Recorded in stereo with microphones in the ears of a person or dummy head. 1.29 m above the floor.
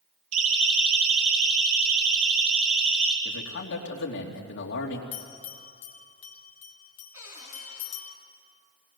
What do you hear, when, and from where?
0.3 s a siren: 90° right, 3.5 m; by 3.1 s 80° right, 5 m
3.2 s a man speaking: 65° left (ahead or behind), 3 m
5.1 s a bell: 40° left (ahead or behind), 1.8 m
7.1 s a cupboard door: 15° right (ahead or behind), 5.5 m